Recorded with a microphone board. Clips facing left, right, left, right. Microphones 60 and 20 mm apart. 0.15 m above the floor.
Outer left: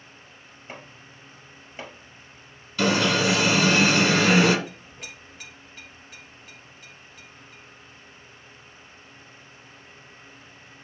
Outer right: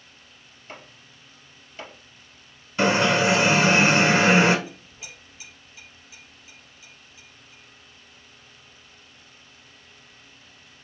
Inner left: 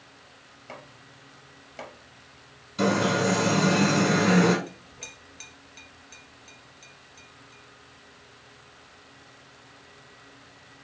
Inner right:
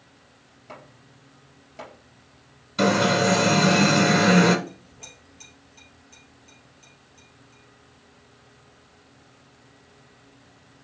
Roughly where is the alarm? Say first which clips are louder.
Outer right 2 dB, inner right 4 dB; right.